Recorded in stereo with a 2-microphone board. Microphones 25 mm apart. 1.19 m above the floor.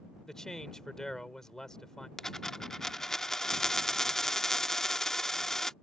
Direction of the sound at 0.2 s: 20° left (ahead or behind).